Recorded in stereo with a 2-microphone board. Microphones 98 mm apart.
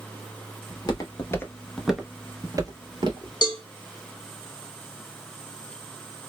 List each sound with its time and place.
0.7 s footsteps: 45° left (ahead or behind), 0.8 m; by 3.3 s 55° right (ahead or behind), 0.9 m
3.4 s a cowbell: 45° left (ahead or behind), 0.6 m